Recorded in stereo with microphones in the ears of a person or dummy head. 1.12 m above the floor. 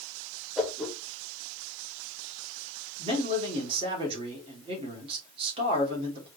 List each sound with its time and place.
0.6 s a whoosh: centre (ahead or behind), 1.5 m
3.0 s a man speaking: 35° right (ahead or behind), 2.5 m